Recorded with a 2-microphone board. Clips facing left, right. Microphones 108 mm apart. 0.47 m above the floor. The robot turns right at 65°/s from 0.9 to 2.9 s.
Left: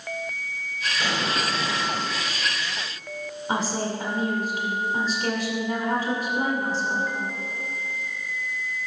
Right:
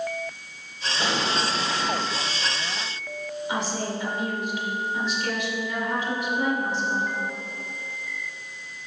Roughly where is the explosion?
Behind right.